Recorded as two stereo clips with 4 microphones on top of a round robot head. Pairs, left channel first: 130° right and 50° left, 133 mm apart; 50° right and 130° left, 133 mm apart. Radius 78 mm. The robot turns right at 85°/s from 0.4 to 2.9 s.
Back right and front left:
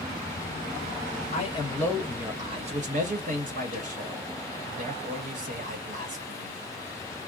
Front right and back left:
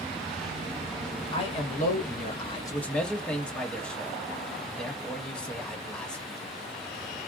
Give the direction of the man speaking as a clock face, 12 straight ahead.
3 o'clock.